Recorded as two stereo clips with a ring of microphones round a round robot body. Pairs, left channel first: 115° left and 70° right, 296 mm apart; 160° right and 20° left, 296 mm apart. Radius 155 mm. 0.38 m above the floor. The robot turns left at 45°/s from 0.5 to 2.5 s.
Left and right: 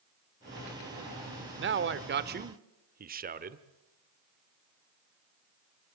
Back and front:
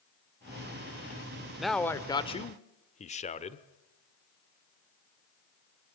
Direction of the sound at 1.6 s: 65° right.